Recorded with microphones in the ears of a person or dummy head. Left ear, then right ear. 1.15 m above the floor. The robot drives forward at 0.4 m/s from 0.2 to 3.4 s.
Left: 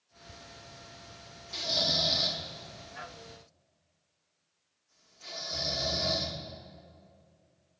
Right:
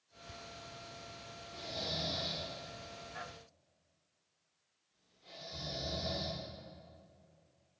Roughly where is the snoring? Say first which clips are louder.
Left 12 dB; left.